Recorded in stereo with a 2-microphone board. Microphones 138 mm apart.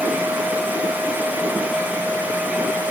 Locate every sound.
Only background noise.